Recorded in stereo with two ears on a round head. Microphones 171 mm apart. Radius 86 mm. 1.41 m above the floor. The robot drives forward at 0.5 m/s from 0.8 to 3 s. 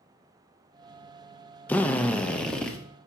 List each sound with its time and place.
1.7 s a drill: 10° left (ahead or behind), 0.6 m; by 2.8 s 5° left (ahead or behind), 0.9 m